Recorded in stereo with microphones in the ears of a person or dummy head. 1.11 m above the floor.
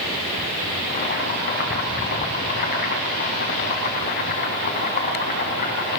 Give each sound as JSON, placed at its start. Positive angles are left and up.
{"t": 0.9, "sound": "boiling", "side_deg": 45, "distance_m": 4.5}